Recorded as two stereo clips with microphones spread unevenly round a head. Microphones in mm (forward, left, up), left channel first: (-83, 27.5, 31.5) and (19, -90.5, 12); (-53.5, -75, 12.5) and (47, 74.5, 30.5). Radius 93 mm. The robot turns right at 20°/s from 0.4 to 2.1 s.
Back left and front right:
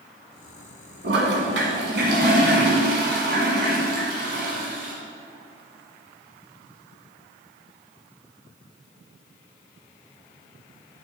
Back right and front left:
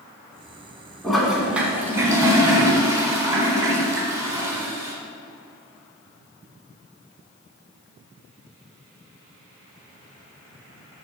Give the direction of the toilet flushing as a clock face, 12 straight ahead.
1 o'clock.